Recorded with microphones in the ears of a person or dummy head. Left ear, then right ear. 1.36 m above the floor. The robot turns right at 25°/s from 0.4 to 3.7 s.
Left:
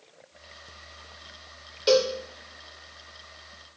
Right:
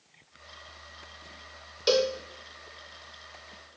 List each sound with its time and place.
1.9 s a cowbell: 15° right (ahead or behind), 0.8 m; by 2.1 s 5° right (ahead or behind), 0.8 m